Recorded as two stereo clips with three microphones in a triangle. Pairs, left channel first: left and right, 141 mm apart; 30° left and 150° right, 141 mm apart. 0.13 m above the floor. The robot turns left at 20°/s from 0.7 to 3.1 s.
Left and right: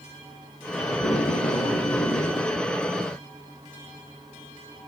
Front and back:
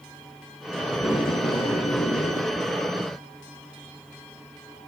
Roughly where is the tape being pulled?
Left.